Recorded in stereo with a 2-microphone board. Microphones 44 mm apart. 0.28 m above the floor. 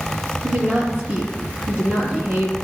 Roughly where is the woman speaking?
Right.